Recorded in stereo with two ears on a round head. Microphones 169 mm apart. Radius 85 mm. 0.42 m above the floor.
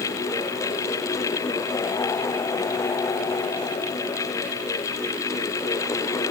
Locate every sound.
Only background noise.